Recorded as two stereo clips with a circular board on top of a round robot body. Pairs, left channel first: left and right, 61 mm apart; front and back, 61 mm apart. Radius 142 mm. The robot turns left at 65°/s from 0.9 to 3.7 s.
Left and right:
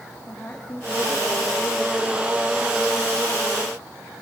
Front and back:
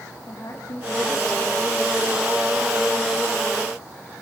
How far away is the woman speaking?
About 3.5 m.